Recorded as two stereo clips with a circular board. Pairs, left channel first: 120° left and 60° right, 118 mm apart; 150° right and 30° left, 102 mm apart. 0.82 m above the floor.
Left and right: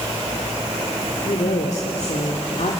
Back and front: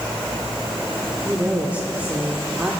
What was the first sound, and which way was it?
A woman speaking, 105° left.